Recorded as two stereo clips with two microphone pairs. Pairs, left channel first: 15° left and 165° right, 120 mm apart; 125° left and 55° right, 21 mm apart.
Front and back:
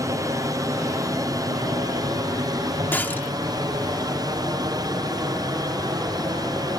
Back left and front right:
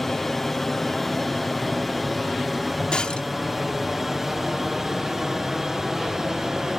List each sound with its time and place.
0.0 s an aircraft: 170° right; by 6.8 s 115° right
2.9 s breaking glass: 90° left